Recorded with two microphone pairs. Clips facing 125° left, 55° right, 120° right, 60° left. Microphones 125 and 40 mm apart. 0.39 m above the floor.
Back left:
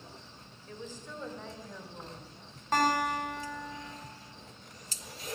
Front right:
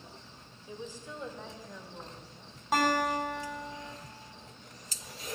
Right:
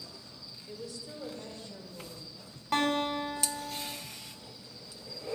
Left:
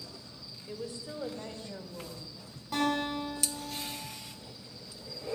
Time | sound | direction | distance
0.7 | a woman speaking | 10° left | 1.7 m
2.7 | a guitar | 135° right | 4 m